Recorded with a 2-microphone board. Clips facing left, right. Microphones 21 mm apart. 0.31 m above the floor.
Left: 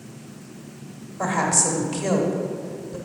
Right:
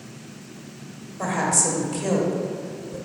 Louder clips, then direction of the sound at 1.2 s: Left 1 dB; 20° left (ahead or behind).